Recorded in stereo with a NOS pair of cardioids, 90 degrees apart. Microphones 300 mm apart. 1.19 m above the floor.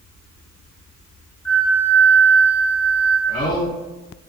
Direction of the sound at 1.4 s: 15° left.